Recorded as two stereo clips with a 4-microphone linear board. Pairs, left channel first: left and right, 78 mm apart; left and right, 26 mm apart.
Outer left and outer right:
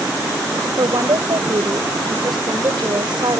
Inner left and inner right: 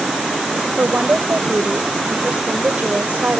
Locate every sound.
0.8 s a woman speaking: 75° right (ahead or behind)